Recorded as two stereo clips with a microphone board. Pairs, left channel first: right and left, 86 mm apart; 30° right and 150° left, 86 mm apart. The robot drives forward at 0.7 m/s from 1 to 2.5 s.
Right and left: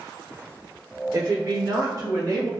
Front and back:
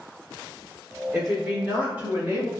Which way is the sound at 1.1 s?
60° left.